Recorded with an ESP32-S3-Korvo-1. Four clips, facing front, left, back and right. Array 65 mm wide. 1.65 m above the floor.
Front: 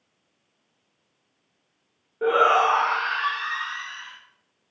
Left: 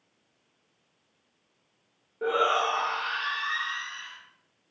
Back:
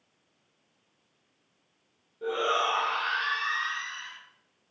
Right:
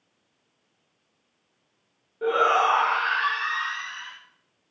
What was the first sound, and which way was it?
A shout, 5° left.